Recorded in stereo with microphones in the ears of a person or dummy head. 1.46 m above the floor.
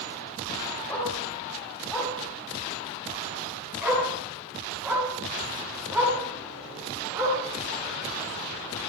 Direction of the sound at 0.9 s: 10° left (ahead or behind).